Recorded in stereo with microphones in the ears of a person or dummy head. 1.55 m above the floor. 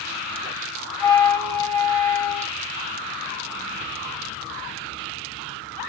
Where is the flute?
10° left (ahead or behind), 4 m.